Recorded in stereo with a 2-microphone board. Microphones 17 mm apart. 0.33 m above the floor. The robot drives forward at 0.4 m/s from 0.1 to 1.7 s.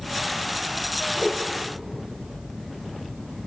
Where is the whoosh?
Centre (ahead or behind), 1.6 m.